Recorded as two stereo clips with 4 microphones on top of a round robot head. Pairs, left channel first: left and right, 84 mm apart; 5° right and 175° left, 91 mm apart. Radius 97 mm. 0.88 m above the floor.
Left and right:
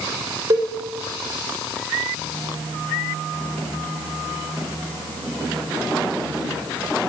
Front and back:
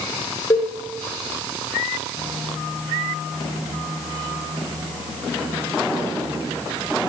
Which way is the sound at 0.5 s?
50° right.